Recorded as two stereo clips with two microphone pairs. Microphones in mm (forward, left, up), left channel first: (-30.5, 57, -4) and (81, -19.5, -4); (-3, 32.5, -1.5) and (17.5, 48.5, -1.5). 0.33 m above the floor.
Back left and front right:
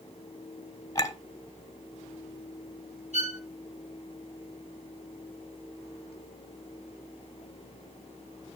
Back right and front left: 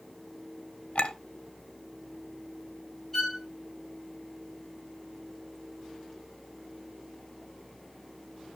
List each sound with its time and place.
0.9 s a clink: 155° right, 1.5 m
3.1 s a violin: 60° right, 1.7 m